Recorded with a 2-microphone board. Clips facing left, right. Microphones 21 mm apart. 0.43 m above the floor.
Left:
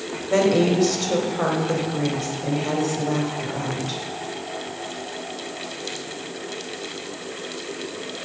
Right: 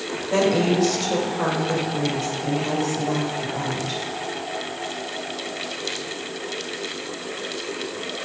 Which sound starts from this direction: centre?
A woman speaking, at 0.3 s.